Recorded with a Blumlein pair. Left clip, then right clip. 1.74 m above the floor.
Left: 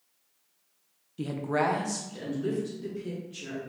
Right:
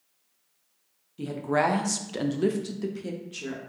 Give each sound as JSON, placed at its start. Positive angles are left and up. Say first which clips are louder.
{"t": 1.2, "sound": "a woman speaking", "louder": "right 3 dB", "azimuth_deg": 10, "distance_m": 0.6}